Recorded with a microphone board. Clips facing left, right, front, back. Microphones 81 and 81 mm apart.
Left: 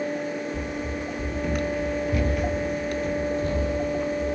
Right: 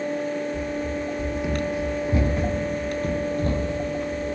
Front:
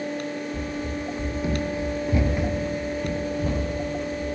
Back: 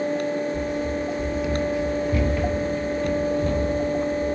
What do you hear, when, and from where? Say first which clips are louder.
0.5 s running footsteps: right 3 dB, back 5 dB; 30° left, 1.2 m; by 4.4 s 85° right, 2 m